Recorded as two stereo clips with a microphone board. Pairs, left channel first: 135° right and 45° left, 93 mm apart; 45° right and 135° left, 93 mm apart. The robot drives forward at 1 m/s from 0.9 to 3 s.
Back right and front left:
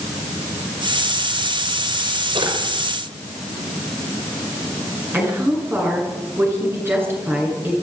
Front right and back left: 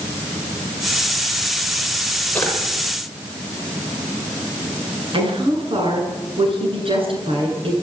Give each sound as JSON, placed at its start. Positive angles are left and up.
{"t": 2.4, "sound": "a drawer", "azimuth_deg": 30, "distance_m": 6.0}
{"t": 5.1, "sound": "a woman speaking", "azimuth_deg": 115, "distance_m": 9.0}